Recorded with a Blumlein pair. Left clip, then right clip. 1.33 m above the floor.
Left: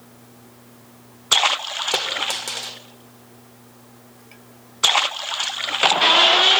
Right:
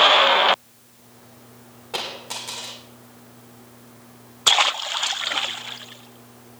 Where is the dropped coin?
60° left, 2 m.